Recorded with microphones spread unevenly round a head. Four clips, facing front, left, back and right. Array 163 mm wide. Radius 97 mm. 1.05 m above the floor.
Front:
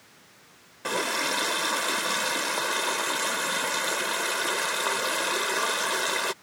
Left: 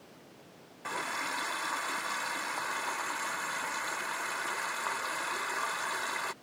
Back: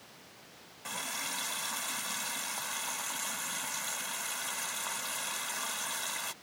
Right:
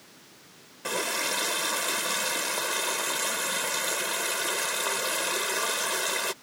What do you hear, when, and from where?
0.8 s a running tap: 15° right